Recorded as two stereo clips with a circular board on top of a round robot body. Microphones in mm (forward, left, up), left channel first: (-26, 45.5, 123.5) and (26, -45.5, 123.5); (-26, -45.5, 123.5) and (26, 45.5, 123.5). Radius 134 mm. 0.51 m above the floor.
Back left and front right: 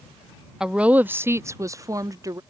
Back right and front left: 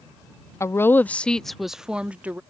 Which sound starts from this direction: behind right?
A woman speaking, at 0.6 s.